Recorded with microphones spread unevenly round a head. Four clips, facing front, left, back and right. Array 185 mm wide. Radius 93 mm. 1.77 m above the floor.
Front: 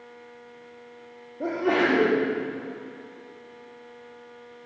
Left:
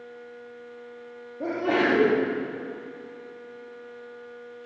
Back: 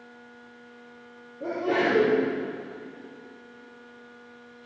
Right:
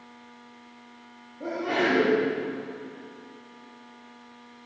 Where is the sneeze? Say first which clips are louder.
Left 3 dB, front 2 dB; 25° left, 4.5 m.